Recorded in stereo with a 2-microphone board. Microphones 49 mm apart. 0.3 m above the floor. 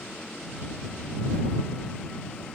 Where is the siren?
I don't hear a siren.